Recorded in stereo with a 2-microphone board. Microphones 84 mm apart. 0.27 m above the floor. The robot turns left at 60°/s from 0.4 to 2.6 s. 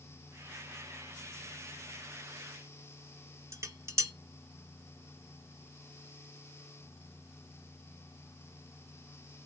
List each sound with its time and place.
3.5 s dishes clattering: 35° right (ahead or behind), 1.1 m